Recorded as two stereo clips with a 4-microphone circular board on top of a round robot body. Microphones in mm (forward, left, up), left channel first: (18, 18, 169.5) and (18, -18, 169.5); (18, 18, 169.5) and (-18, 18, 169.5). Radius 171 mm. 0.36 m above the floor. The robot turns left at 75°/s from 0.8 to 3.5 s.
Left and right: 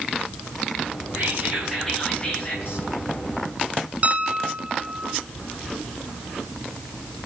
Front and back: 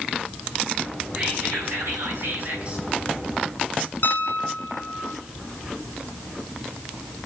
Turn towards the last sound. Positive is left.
turn(degrees=-30)